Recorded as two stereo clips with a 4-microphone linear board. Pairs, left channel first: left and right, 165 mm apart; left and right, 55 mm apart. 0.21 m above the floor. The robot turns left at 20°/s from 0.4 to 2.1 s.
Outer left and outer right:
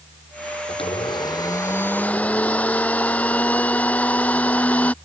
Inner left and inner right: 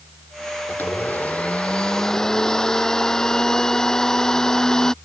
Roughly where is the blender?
Left.